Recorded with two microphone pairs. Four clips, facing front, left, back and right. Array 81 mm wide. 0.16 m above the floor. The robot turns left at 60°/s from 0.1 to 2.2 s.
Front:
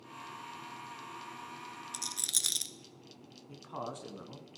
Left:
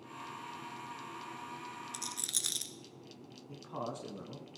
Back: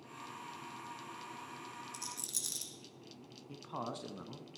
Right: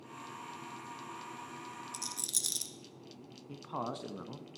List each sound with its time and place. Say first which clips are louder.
1.9 s a rattle: left 1 dB, front 3 dB; 40° left, 0.9 m; by 2.7 s 20° left, 0.9 m
3.5 s a man speaking: right 2 dB, front 1 dB; 85° right, 1.1 m